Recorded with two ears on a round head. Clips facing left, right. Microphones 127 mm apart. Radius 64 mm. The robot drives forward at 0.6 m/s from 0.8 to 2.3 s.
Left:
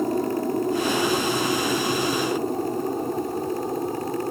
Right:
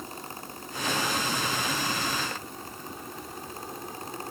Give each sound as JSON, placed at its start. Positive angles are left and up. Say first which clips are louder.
{"t": 0.0, "sound": "an aircraft", "louder": "left 18 dB", "side_deg": 50}